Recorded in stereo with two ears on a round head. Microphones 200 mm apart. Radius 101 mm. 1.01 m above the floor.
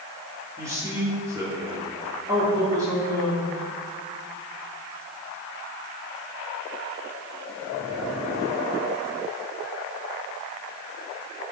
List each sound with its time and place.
0.6 s a man speaking: 15° right (ahead or behind), 2.5 m